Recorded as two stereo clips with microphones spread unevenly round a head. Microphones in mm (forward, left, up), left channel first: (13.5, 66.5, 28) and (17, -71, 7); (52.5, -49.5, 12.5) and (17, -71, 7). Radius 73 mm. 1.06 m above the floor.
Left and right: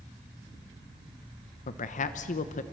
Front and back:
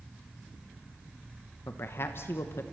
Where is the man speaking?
65° left, 0.9 m.